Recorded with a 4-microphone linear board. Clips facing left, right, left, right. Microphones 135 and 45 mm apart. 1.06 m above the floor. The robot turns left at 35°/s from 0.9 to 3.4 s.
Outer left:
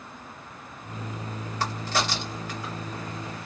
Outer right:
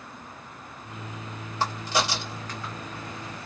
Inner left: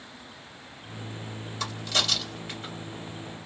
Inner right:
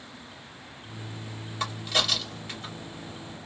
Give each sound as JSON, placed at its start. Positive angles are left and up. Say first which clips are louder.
{"t": 1.6, "sound": "a crack", "louder": "outer right 2 dB, inner right 1 dB", "side_deg": -25, "distance_m": 1.6}